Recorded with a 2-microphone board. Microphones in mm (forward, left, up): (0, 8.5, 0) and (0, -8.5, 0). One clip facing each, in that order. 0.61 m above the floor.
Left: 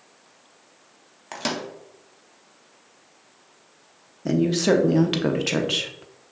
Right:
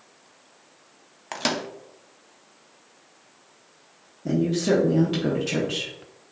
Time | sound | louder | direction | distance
1.3 | a microwave | right 2 dB | 20° right (ahead or behind) | 0.5 m
4.2 | a woman speaking | left 2 dB | 40° left (ahead or behind) | 0.8 m